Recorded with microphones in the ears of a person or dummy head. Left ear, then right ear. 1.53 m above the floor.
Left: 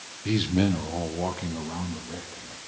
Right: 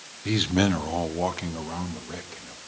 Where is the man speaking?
20° right (ahead or behind), 1.1 m; by 2.6 s 70° right (ahead or behind), 3 m.